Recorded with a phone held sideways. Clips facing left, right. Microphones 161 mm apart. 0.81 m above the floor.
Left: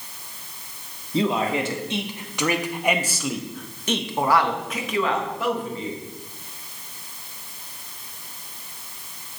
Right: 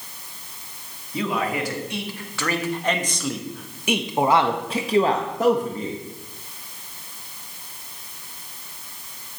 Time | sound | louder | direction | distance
1.1 | a man speaking | left 3 dB | 30° left (ahead or behind) | 2.0 m